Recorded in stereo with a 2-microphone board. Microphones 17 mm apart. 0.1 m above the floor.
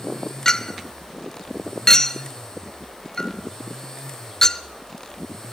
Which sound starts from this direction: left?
A clink, at 0.5 s.